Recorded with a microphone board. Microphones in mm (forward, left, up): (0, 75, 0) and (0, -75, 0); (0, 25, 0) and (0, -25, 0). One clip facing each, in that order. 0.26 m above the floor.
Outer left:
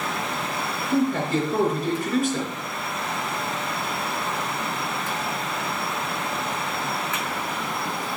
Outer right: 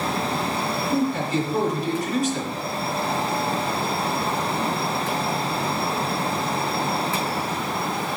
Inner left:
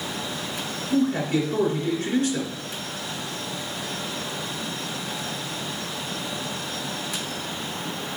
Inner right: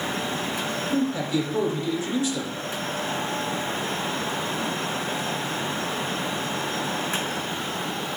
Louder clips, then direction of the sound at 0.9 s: Outer left 2 dB, inner left 4 dB; 60° left (ahead or behind).